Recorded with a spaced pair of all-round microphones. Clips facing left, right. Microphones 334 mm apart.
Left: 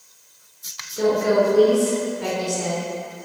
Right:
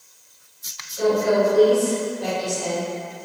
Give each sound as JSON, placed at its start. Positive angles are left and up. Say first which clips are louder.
{"t": 1.0, "sound": "a woman speaking", "louder": "even", "side_deg": 65, "distance_m": 1.9}